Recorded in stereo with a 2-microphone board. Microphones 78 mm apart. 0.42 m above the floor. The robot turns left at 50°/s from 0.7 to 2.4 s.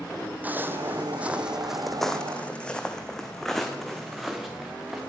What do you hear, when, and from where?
0.4 s footsteps: 20° right (ahead or behind), 1.0 m; by 5.0 s 5° right (ahead or behind), 2.5 m